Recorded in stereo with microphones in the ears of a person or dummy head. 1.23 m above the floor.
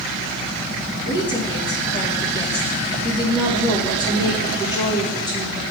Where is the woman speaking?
30° left (ahead or behind), 1.5 m.